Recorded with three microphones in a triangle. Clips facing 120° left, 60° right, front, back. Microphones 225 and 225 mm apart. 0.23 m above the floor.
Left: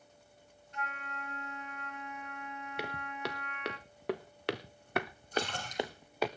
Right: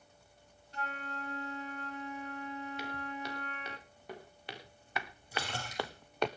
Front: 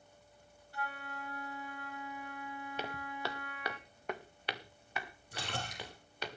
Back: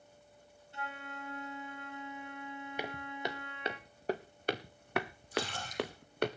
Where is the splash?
20° left, 4.5 m.